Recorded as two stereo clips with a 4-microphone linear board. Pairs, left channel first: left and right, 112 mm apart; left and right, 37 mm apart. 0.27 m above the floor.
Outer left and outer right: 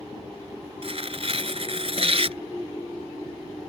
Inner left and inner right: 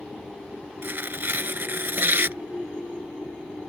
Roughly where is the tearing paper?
Right.